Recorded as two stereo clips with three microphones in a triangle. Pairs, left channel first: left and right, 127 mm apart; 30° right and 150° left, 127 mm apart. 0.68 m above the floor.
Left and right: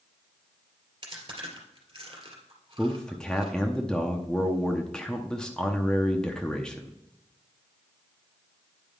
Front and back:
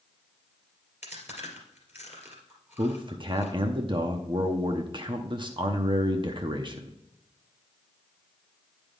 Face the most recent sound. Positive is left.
turn(degrees=170)